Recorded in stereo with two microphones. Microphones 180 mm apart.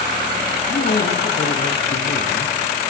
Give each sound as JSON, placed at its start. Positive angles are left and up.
{"t": 0.7, "sound": "a man speaking", "side_deg": 55, "distance_m": 3.5}